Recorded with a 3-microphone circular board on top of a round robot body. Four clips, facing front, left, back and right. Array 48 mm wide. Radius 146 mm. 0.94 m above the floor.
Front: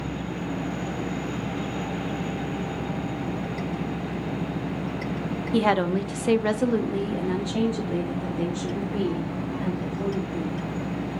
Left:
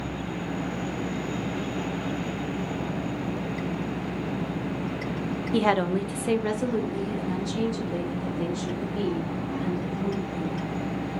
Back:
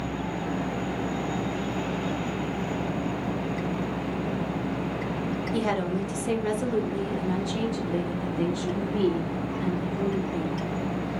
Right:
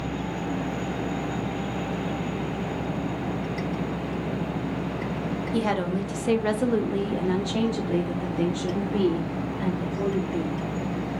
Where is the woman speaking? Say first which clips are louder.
Left 4 dB, front 7 dB; 40° left, 0.8 m; by 10.6 s 95° right, 2 m.